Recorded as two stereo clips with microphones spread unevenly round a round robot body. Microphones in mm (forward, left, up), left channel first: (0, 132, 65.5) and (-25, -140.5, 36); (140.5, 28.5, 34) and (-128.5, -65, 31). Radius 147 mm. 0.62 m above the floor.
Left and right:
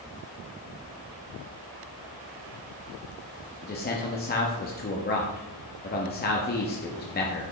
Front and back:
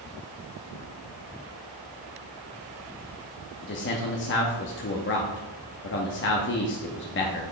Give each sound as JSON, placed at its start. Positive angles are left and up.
{"t": 3.6, "sound": "a man speaking", "azimuth_deg": 40, "distance_m": 0.8}